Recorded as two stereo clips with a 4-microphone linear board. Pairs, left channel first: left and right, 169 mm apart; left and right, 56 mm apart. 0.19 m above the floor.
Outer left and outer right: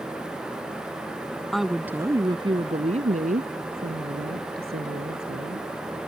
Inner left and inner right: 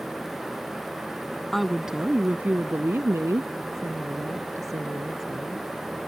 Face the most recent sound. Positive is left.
turn(degrees=-75)  # may be behind; listen again after turning